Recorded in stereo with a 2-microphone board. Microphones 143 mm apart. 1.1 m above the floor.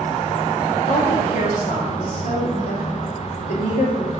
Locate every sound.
0.9 s a woman speaking: 70° left (ahead or behind), 2.5 m